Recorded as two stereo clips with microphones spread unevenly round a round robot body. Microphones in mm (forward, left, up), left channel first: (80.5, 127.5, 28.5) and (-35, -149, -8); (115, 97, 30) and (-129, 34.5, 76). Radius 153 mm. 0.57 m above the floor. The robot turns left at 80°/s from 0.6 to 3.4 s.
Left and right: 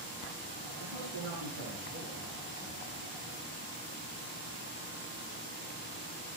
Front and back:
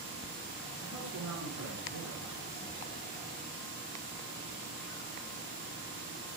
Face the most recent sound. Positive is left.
turn(degrees=70)